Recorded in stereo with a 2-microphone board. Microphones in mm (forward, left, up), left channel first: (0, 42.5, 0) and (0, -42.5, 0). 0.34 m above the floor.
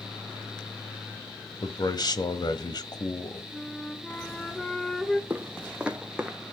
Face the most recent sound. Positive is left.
turn(degrees=-10)  # may be behind; listen again after turning